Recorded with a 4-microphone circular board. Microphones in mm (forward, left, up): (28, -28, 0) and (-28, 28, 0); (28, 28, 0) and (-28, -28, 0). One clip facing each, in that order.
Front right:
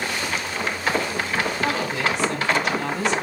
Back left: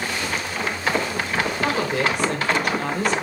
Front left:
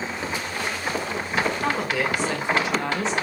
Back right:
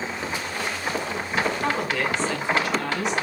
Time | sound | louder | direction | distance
1.6 | a woman speaking | back left 2 dB, even | 135° left | 2.5 m